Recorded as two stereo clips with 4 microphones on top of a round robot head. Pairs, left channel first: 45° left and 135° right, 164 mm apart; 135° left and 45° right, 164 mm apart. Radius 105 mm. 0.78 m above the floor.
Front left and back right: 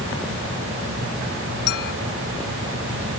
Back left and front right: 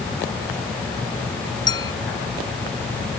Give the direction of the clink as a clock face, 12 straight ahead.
10 o'clock.